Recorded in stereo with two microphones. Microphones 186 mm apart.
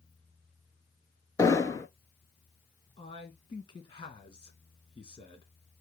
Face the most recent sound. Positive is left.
turn(degrees=25)  # may be behind; listen again after turning